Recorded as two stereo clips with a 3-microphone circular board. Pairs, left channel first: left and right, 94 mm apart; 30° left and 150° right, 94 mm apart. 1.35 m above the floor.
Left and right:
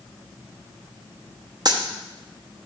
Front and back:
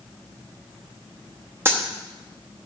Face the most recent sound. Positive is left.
turn(degrees=-95)